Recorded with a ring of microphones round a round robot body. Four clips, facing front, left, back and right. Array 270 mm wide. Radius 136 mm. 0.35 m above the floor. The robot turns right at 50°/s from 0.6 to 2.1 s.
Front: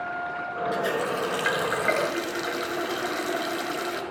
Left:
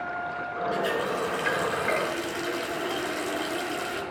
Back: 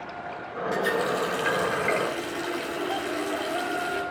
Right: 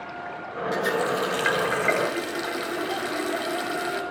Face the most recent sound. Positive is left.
turn(degrees=-25)